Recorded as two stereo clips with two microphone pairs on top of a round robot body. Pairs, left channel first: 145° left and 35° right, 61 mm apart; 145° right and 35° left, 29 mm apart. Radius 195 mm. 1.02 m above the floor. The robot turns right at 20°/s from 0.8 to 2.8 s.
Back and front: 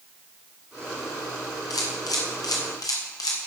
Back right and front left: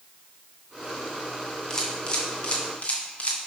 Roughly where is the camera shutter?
Behind left.